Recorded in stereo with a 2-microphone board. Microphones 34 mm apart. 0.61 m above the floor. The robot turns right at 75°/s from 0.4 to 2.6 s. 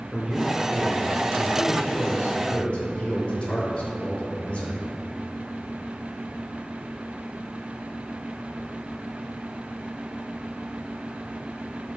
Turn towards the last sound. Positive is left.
turn(degrees=145)